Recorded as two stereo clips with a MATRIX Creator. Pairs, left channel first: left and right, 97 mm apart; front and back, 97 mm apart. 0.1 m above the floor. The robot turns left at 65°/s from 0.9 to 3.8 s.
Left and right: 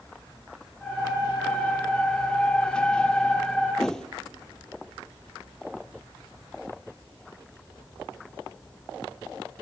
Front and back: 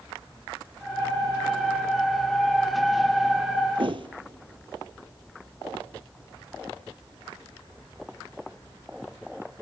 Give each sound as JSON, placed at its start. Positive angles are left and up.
{"t": 3.8, "sound": "a whoosh", "azimuth_deg": 175, "distance_m": 0.9}